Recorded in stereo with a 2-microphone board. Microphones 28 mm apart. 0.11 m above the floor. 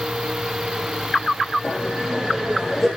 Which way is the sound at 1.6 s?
25° left (ahead or behind).